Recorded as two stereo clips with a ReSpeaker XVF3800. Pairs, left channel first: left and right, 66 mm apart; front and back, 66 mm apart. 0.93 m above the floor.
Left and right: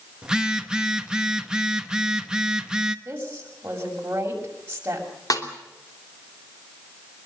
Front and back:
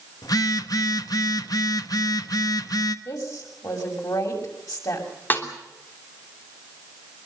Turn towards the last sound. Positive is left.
turn(degrees=60)